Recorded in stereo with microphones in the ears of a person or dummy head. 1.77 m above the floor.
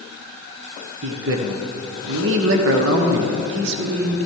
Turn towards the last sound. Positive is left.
turn(degrees=-60)  # may be behind; listen again after turning